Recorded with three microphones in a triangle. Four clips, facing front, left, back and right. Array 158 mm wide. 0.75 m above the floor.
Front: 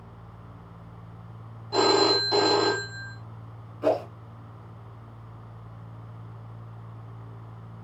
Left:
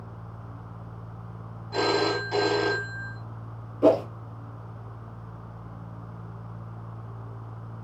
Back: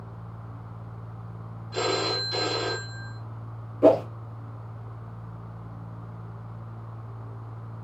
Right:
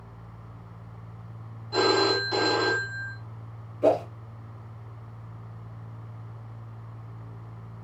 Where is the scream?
I don't hear a scream.